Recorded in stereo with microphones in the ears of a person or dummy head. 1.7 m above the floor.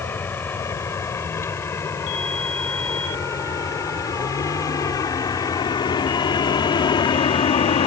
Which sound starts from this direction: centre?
A vehicle, at 0.0 s.